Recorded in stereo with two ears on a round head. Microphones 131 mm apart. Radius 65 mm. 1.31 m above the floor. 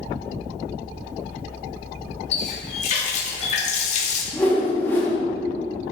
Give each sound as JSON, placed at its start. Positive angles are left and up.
{"t": 2.3, "sound": "a running tap", "side_deg": 50, "distance_m": 1.8}
{"t": 4.3, "sound": "a whoosh", "side_deg": 15, "distance_m": 2.0}